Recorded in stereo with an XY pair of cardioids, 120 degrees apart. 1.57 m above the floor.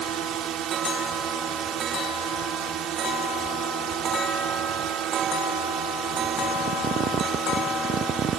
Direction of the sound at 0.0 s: 65° right.